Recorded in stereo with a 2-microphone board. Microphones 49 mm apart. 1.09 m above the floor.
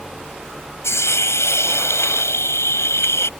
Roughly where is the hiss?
Left.